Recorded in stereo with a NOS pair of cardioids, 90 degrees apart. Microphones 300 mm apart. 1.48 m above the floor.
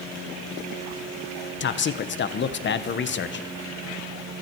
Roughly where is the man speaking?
Ahead left.